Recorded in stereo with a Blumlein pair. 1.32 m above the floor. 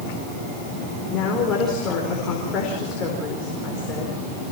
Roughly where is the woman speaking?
Ahead left.